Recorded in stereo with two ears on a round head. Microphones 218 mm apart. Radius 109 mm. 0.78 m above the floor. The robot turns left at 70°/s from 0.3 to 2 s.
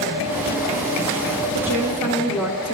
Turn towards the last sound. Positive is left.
turn(degrees=-175)